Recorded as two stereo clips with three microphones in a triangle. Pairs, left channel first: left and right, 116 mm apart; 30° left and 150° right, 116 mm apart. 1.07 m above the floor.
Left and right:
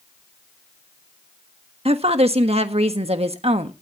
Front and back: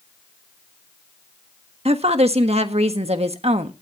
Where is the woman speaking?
120° right, 1.4 m.